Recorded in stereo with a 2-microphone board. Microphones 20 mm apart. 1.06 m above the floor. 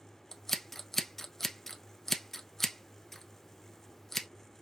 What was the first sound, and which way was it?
Scissors, 15° left (ahead or behind).